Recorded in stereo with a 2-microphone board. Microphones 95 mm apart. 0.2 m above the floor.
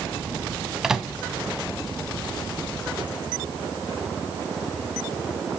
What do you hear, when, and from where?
0.8 s a microwave: 5° right (ahead or behind), 0.9 m